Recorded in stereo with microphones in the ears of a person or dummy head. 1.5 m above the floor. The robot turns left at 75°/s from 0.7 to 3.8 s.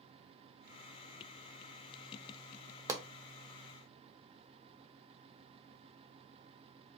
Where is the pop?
15° right (ahead or behind), 0.5 m; by 3.0 s 25° right (ahead or behind), 0.5 m.